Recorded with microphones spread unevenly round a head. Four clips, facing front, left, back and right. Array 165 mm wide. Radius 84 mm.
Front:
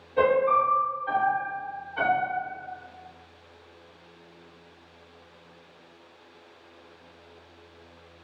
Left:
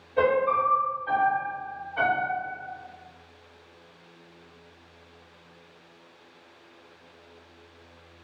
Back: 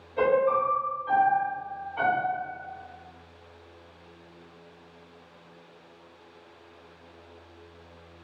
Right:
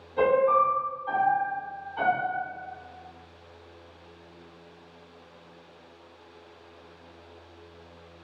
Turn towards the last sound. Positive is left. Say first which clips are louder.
# right 1 dB, front 2 dB
turn(degrees=45)